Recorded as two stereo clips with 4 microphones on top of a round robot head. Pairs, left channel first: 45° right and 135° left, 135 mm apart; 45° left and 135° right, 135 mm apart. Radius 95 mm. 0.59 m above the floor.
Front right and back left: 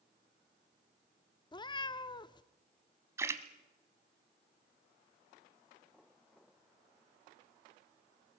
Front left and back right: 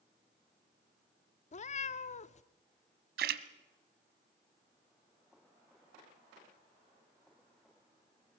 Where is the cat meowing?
15° left, 0.7 m.